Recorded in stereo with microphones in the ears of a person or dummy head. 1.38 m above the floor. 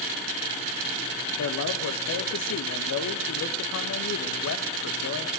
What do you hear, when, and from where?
1.4 s a man speaking: 70° left (ahead or behind), 1.7 m